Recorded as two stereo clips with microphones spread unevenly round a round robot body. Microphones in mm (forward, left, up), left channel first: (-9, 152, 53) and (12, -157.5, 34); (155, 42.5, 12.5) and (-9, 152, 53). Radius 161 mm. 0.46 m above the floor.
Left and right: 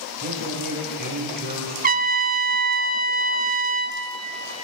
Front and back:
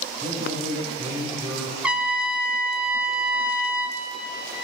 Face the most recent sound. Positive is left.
turn(degrees=-115)